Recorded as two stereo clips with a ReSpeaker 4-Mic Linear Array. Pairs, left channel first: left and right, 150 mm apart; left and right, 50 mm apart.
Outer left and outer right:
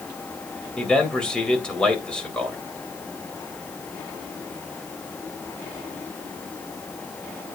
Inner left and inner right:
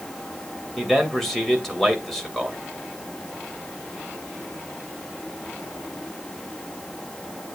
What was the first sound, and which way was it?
A man speaking, 5° left (ahead or behind).